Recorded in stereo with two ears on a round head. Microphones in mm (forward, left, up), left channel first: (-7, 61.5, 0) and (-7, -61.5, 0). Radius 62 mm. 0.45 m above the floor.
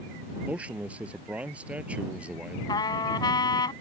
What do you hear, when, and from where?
0.5 s a man speaking: 10° right (ahead or behind)
2.7 s a trumpet: 30° left (ahead or behind)